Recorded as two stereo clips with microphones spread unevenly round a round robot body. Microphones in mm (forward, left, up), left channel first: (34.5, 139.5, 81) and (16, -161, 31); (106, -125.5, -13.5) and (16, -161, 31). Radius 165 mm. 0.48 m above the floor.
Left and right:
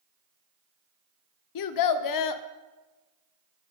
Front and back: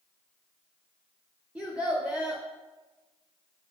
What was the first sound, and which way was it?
A child speaking, 100° left.